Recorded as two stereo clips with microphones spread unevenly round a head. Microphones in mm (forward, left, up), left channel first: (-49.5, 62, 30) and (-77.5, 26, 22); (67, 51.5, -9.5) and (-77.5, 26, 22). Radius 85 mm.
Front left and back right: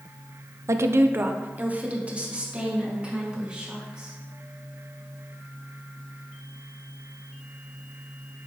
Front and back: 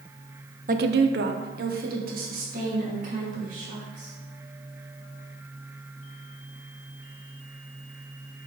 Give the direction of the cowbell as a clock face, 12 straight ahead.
No cowbell in this recording.